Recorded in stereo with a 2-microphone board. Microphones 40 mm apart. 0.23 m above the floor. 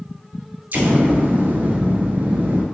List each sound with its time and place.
0.7 s an explosion: 50° right (ahead or behind), 0.5 m